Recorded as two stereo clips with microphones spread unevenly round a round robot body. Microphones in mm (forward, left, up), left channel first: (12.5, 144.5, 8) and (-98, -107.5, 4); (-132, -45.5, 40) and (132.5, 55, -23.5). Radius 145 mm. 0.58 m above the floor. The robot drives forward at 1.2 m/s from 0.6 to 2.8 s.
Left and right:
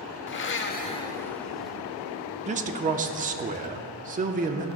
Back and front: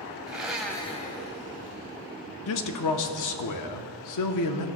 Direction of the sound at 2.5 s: 155° right.